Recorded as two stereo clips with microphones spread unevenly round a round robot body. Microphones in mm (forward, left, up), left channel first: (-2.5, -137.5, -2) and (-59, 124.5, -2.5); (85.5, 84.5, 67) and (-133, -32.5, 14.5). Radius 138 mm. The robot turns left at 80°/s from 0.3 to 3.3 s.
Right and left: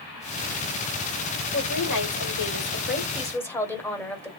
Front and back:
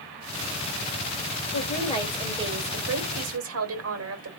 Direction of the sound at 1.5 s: 15° right.